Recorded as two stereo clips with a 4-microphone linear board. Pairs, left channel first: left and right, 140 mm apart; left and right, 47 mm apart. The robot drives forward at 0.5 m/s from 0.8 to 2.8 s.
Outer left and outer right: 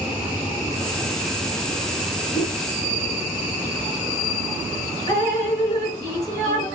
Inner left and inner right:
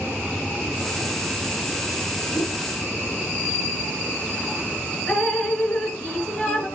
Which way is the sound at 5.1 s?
25° left (ahead or behind).